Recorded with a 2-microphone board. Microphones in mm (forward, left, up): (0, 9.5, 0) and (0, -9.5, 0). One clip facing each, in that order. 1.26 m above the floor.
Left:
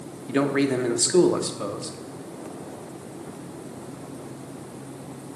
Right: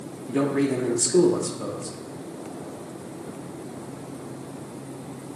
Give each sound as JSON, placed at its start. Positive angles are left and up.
{"t": 0.3, "sound": "a man speaking", "side_deg": 60, "distance_m": 0.7}